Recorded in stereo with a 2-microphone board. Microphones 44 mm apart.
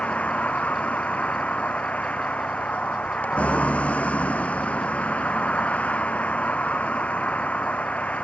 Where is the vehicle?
30° left (ahead or behind).